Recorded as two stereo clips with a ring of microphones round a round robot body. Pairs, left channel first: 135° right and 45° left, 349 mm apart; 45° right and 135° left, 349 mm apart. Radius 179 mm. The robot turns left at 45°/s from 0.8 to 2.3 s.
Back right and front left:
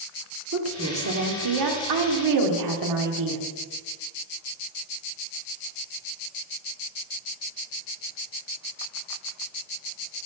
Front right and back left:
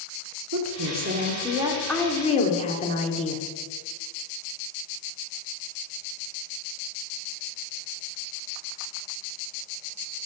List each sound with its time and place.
0.5 s a woman speaking: 90° left, 1.6 m; by 3.4 s 25° left, 1.6 m